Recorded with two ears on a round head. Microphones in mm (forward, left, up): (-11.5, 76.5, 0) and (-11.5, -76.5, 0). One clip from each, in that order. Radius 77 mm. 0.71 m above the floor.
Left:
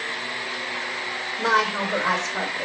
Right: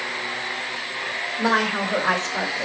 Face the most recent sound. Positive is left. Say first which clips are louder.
# left 1 dB
turn(degrees=0)  # may be behind; listen again after turning